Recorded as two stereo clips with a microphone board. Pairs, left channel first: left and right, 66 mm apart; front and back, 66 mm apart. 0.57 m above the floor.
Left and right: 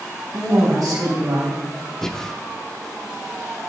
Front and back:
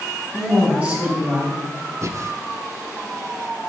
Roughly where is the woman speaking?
Right.